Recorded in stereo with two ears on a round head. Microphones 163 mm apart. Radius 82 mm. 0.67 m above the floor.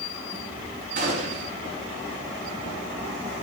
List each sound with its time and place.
1.0 s a gunshot: 45° right (ahead or behind), 5 m